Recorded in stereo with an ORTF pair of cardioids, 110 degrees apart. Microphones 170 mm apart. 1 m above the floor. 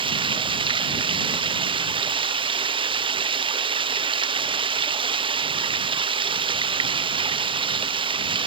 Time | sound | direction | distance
0.0 | running water | 30° right | ?